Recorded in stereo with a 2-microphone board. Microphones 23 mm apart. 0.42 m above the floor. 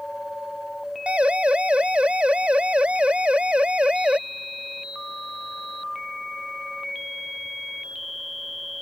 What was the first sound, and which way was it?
A siren, 80° right.